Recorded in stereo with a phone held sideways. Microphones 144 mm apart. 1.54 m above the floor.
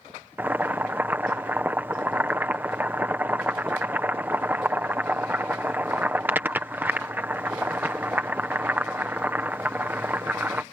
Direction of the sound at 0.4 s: 15° right (ahead or behind).